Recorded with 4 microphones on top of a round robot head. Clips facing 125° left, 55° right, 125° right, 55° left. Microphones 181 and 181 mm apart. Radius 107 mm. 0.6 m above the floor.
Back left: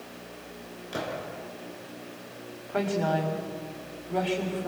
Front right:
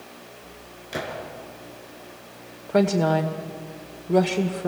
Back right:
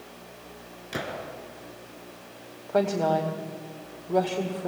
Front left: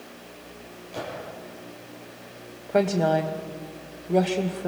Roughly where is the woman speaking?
Ahead right.